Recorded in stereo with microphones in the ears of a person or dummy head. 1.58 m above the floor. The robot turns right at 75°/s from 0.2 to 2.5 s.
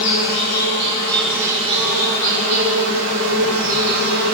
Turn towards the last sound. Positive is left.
turn(degrees=-85)